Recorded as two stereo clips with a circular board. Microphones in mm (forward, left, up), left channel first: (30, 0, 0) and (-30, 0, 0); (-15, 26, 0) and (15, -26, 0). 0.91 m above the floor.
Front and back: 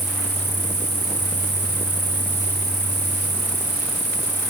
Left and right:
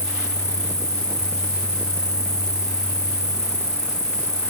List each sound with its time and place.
0.0 s an insect: 120° left